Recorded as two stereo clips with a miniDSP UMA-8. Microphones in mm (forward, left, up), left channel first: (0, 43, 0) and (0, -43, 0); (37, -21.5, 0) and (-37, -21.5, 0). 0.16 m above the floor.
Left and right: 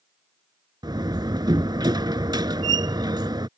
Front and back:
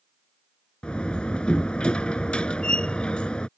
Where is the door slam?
75° right.